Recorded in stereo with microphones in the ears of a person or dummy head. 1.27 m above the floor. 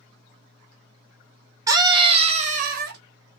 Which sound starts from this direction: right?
A scream, at 1.7 s.